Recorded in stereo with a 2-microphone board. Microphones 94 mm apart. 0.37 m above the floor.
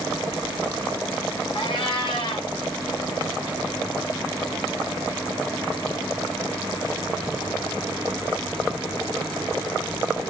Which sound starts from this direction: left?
A cat meowing, at 1.6 s.